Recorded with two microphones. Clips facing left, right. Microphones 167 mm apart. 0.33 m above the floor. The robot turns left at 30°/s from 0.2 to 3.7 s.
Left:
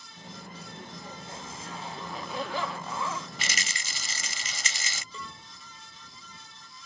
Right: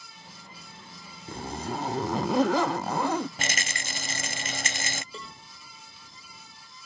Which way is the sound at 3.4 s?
50° right (ahead or behind).